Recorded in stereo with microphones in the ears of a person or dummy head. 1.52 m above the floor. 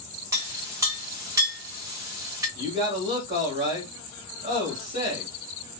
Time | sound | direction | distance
0.3 | a clink | 20° right (ahead or behind) | 1.2 m
2.5 | a man speaking | 35° right (ahead or behind) | 1.8 m